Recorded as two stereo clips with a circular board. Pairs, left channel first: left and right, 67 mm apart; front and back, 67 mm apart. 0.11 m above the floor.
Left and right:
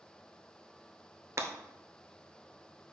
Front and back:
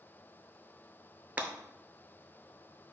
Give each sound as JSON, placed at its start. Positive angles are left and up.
{"t": 1.4, "sound": "breaking glass", "azimuth_deg": -120, "distance_m": 0.5}